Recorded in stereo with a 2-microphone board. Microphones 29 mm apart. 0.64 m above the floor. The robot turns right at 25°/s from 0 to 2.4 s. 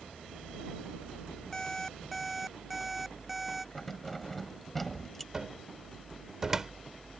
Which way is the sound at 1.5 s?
20° left (ahead or behind).